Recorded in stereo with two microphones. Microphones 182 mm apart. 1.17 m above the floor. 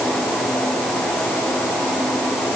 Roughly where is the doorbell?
No doorbell in this recording.